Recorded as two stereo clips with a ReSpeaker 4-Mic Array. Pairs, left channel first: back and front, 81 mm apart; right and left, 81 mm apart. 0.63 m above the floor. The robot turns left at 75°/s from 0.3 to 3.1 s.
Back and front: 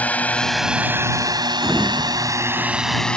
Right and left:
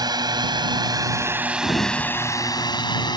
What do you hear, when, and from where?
0.0 s a drone: 110° left; by 3.2 s 100° right
1.6 s a sliding door: 85° right; by 3.2 s 165° left